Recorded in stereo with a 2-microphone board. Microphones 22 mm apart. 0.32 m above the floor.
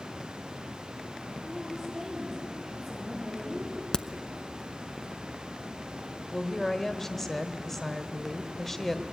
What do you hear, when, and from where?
1.4 s a woman speaking: 5° left (ahead or behind), 8 m
3.9 s a crack: 50° left (ahead or behind), 0.7 m
6.3 s a woman speaking: 15° left (ahead or behind), 1.3 m